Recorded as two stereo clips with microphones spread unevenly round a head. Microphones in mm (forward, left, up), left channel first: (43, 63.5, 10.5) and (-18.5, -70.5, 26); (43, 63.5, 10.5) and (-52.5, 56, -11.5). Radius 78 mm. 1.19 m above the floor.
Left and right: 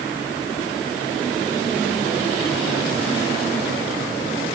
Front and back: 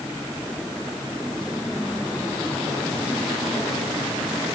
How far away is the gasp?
No gasp in this recording.